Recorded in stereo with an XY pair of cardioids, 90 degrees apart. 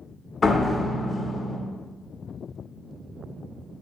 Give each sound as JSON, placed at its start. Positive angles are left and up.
{"t": 0.4, "sound": "a door slam", "azimuth_deg": 40, "distance_m": 0.7}